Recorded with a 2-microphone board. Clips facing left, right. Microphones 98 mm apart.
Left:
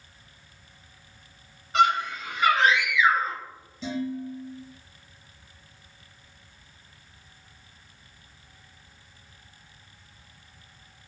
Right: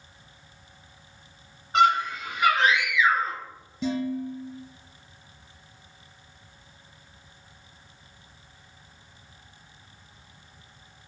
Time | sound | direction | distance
1.7 | a scream | 35° right (ahead or behind) | 1.9 m
3.8 | dishes clattering | 60° right (ahead or behind) | 1.6 m